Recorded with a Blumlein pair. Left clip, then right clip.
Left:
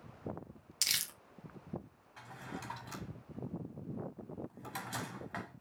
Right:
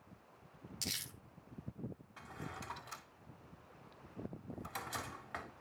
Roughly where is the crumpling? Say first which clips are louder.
Left 8 dB; ahead left.